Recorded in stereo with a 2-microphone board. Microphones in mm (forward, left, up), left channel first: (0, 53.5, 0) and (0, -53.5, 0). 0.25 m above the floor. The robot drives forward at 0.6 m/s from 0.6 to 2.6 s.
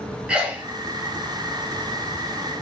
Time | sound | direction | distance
0.3 | a sneeze | 10° right (ahead or behind) | 1.3 m